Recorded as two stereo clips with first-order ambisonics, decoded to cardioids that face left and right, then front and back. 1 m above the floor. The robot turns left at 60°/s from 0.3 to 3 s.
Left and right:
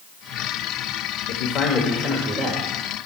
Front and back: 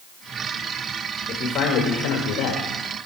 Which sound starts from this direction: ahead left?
A man speaking, at 1.3 s.